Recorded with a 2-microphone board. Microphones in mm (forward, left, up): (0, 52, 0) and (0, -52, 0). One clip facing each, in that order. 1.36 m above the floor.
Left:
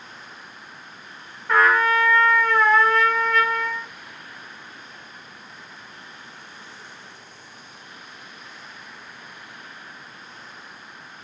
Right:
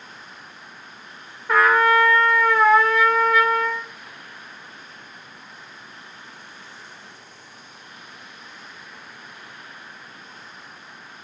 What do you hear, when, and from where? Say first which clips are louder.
1.5 s a trumpet: right 2 dB; 5° right (ahead or behind), 1.1 m